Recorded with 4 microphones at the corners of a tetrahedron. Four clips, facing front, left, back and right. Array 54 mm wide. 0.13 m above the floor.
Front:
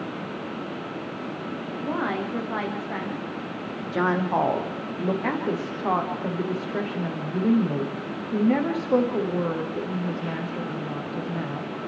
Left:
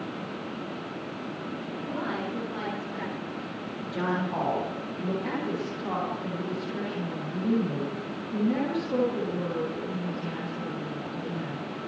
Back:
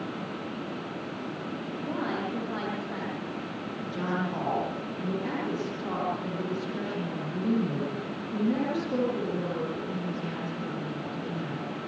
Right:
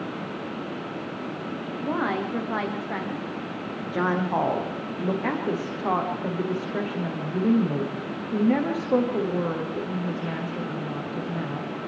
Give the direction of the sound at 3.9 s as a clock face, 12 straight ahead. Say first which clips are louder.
Right 5 dB, front 9 dB; 1 o'clock.